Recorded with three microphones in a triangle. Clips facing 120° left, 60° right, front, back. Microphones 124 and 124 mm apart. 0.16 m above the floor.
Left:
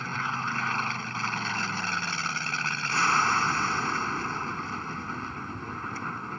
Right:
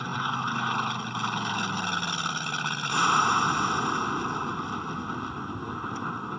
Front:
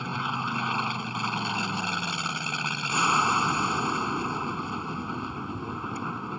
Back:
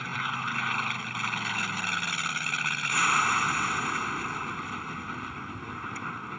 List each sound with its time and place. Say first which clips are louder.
0.0 s an aircraft: right 2 dB, front 3 dB; 5° right